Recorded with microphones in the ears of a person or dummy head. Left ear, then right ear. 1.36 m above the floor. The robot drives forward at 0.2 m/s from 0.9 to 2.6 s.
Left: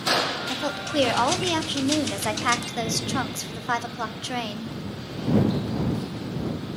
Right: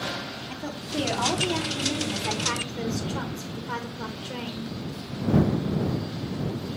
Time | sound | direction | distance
0.5 | a woman speaking | 65° left (ahead or behind) | 1.0 m